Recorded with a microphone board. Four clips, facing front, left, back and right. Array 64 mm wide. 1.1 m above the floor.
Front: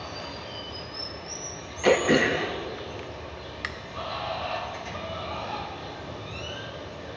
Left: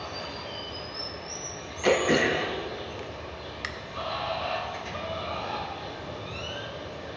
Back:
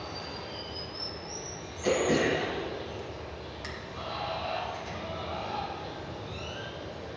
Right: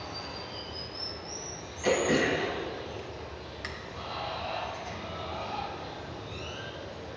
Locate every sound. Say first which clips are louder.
0.0 s running water: left 3 dB, front 2 dB; 60° left, 1.3 m
1.8 s throat clearing: left 3 dB, front 5 dB; 20° left, 0.6 m